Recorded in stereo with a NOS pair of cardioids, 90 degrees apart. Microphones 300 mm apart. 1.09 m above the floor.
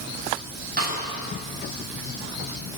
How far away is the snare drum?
About 6 m.